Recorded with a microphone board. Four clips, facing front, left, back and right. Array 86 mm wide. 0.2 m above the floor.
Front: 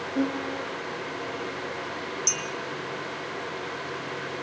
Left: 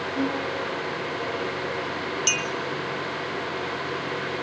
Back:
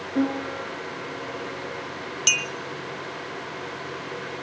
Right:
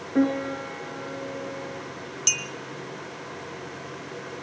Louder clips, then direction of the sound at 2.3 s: Left 7 dB, back 3 dB; 165° left.